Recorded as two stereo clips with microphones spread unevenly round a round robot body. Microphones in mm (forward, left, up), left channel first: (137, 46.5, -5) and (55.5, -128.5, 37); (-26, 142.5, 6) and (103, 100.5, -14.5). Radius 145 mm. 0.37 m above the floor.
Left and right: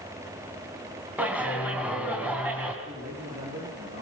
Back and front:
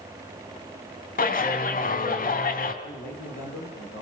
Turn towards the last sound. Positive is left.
turn(degrees=180)